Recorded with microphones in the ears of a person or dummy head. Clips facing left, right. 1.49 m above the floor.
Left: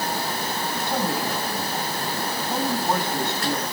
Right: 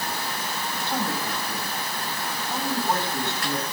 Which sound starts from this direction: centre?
A man speaking, at 0.8 s.